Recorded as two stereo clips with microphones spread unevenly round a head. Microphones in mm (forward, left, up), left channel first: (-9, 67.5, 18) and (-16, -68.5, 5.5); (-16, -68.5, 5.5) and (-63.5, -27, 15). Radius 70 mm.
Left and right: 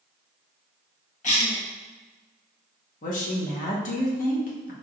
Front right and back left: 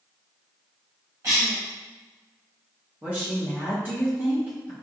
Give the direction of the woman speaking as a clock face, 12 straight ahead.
10 o'clock.